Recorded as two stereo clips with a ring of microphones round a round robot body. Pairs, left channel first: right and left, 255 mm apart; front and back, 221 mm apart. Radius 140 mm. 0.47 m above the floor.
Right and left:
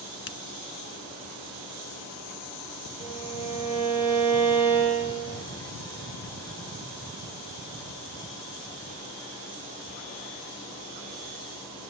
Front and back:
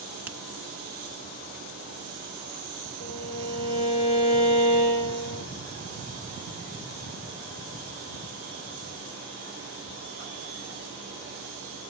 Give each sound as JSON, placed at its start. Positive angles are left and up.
{"t": 0.3, "sound": "a finger snap", "azimuth_deg": -100, "distance_m": 1.2}
{"t": 3.0, "sound": "a violin", "azimuth_deg": -15, "distance_m": 9.5}